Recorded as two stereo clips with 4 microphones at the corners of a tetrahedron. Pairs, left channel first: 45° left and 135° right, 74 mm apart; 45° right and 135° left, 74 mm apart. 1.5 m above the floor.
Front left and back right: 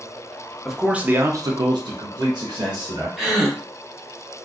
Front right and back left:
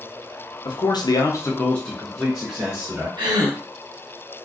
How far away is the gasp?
About 0.7 m.